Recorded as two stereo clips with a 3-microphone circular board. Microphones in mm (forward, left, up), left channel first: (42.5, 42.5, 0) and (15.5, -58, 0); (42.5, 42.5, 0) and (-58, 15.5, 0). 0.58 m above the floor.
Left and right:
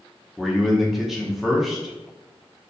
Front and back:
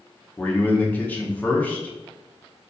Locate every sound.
0.4 s a man speaking: 20° right, 0.8 m